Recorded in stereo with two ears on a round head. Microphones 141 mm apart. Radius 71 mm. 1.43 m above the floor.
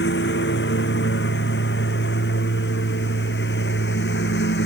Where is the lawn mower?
80° left; by 4.7 s 85° left.